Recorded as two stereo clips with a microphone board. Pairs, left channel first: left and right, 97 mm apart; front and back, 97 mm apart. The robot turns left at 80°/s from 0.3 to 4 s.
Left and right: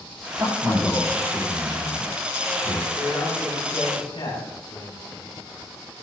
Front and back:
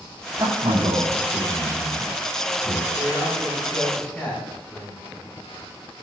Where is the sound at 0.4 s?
135° right, 7 m; by 2.9 s 30° left, 7 m.